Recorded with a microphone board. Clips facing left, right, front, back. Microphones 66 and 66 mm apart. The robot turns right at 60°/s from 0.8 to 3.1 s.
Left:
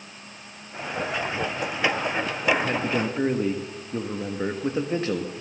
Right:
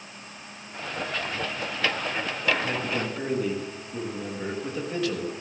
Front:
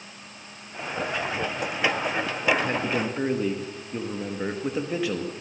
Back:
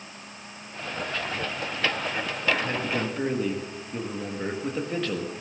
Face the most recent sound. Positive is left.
turn(degrees=70)